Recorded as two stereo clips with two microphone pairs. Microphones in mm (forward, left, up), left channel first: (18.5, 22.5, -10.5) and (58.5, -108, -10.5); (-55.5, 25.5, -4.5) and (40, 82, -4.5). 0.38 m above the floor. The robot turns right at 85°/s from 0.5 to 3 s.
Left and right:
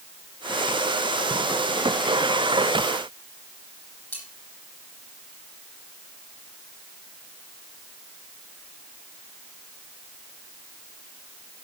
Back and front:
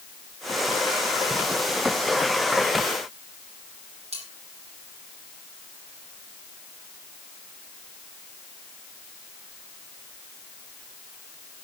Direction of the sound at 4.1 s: 30° left.